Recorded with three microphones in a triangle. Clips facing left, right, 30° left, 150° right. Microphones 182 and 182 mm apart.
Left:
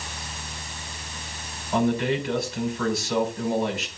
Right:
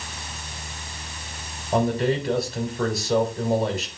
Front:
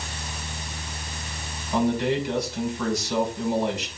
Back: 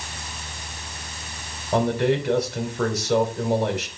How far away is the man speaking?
About 3 m.